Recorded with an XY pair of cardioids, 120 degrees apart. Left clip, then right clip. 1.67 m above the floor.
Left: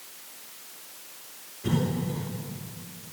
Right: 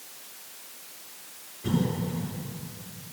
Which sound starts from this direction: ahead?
A cough, at 1.6 s.